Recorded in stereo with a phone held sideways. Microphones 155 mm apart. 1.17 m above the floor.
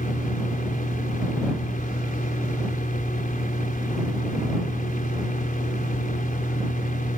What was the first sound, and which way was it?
A fan, 60° left (ahead or behind).